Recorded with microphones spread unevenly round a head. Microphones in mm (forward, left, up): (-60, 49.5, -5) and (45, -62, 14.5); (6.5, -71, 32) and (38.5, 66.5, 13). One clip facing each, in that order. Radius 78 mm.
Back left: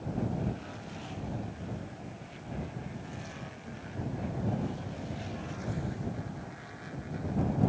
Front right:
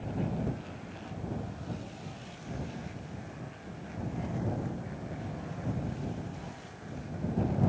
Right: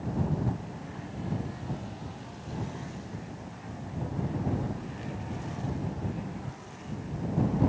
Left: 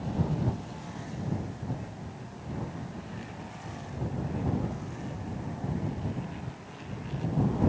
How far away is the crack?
No crack in this recording.